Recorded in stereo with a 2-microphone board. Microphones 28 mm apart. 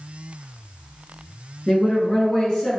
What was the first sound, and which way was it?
A woman speaking, 30° left (ahead or behind).